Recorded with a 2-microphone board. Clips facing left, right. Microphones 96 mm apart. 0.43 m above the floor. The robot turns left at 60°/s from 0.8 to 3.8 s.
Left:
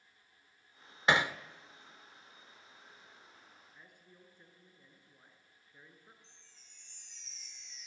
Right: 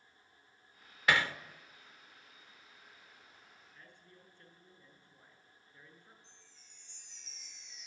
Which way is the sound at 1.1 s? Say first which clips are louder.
Left 2 dB; 25° left (ahead or behind).